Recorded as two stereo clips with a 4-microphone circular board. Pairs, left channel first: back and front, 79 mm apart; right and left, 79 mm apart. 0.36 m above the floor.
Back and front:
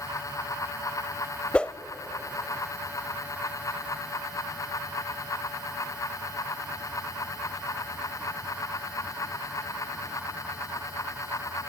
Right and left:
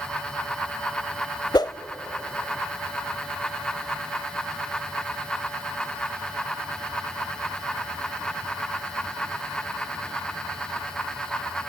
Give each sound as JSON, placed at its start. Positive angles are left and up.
{"t": 1.5, "sound": "a whoosh", "azimuth_deg": -105, "distance_m": 0.6}